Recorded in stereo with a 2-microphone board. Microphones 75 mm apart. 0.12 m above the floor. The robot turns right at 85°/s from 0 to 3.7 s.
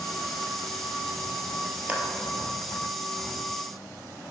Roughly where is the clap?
Centre.